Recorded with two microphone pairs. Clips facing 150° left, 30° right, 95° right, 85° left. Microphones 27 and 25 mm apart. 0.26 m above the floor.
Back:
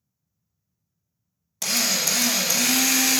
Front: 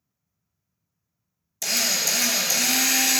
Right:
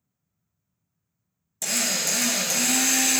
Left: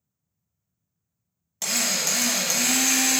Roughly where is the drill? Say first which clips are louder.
Even, left 1 dB; behind left.